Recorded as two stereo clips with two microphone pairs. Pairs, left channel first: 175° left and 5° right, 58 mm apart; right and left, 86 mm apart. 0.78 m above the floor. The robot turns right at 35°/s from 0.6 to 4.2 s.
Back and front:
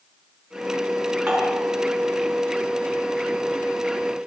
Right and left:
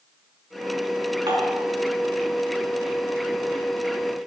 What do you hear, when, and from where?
1.3 s dishes clattering: 75° left, 5 m; by 1.6 s 85° left, 5 m